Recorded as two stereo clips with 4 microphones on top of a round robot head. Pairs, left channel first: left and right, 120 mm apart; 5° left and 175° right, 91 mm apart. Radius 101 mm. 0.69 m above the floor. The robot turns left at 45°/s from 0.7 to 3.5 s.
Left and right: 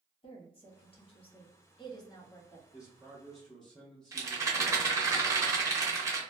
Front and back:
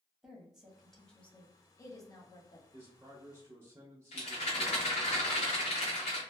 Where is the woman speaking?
105° left, 1.2 m; by 2.6 s 20° left, 1.2 m.